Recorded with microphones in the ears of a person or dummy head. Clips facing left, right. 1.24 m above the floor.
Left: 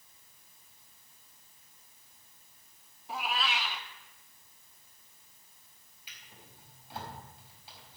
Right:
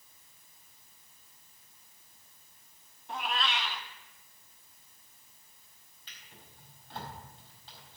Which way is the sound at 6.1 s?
10° left (ahead or behind).